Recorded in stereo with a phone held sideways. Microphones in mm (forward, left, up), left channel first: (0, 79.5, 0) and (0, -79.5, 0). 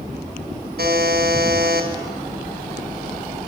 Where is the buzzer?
80° right, 4.5 m.